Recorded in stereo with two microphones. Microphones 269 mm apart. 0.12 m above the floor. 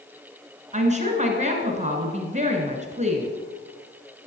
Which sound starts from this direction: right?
A woman speaking, at 0.7 s.